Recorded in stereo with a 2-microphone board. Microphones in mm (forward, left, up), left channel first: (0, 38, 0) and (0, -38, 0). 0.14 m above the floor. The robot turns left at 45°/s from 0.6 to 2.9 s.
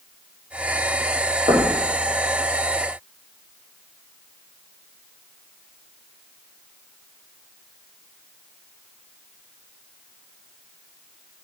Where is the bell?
I don't hear a bell.